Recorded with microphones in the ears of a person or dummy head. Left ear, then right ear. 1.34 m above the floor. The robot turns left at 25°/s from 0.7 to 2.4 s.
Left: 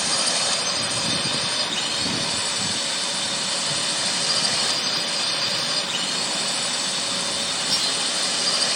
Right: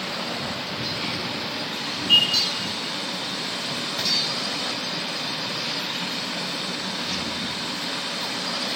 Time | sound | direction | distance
0.0 | a drone | 65° left | ?